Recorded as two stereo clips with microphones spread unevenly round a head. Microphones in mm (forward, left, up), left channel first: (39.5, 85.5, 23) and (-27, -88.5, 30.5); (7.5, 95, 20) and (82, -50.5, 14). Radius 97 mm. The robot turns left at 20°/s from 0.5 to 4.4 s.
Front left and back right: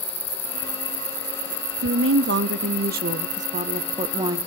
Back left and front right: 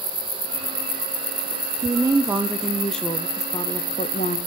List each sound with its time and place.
1.8 s a woman speaking: 135° right, 0.7 m; by 4.4 s 175° left, 0.7 m